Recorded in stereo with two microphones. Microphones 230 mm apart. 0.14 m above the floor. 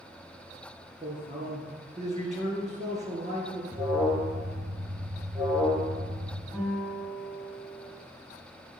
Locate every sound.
1.0 s a man speaking: 30° right (ahead or behind), 1.9 m
3.7 s an alarm: 10° right (ahead or behind), 1.7 m
6.5 s a guitar: 5° right (ahead or behind), 2.5 m